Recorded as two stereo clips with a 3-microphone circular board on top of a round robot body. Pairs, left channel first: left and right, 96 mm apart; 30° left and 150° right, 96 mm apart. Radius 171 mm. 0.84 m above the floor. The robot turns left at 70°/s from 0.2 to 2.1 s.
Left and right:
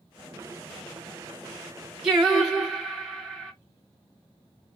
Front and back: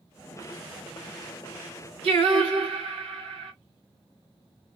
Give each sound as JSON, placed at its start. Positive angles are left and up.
{"t": 2.0, "sound": "singing", "azimuth_deg": -170, "distance_m": 1.8}